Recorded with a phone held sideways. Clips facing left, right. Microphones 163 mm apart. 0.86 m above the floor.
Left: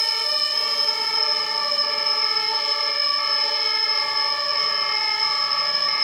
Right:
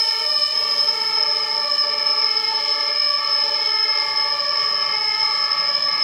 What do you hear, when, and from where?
0.0 s an insect: 70° right (ahead or behind), 1.7 m